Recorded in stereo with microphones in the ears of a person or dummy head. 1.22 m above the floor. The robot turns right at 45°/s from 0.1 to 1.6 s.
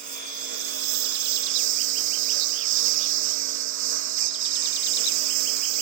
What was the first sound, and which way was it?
A lawn mower, 40° right (ahead or behind).